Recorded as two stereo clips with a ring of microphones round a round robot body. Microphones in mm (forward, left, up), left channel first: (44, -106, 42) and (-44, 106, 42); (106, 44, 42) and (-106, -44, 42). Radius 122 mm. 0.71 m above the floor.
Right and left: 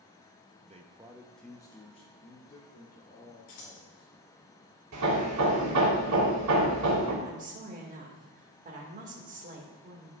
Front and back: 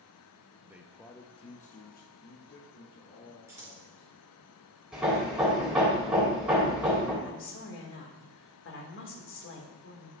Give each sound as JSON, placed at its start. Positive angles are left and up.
{"t": 0.6, "sound": "a man speaking", "azimuth_deg": 135, "distance_m": 0.8}
{"t": 3.5, "sound": "scissors", "azimuth_deg": -80, "distance_m": 2.5}
{"t": 4.9, "sound": "hammering", "azimuth_deg": 115, "distance_m": 2.5}
{"t": 7.2, "sound": "a woman speaking", "azimuth_deg": 55, "distance_m": 1.9}